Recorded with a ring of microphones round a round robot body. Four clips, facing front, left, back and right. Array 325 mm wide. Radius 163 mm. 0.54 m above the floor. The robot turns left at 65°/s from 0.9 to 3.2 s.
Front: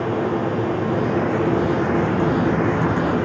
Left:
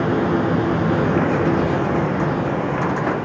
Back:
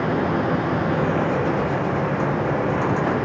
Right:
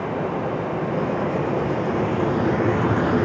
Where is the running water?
95° left, 5 m; by 3.2 s 55° right, 5 m.